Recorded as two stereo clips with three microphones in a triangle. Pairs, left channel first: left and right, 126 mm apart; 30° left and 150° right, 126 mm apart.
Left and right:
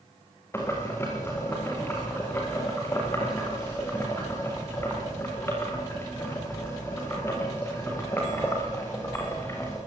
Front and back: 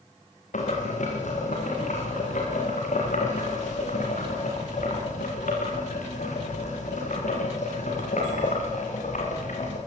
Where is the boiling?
20° left, 7 m.